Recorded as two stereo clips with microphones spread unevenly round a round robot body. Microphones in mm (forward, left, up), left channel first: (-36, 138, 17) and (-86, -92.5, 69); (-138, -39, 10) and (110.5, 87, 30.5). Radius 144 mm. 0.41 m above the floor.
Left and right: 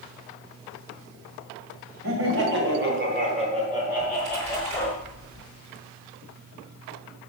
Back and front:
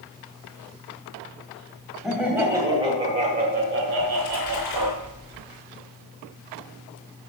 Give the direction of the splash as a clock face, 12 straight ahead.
4 o'clock.